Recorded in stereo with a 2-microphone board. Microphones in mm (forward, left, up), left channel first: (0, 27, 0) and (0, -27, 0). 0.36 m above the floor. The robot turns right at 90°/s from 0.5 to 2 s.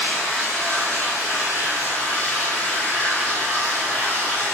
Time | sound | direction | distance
0.0 | running water | 5° left | 1.4 m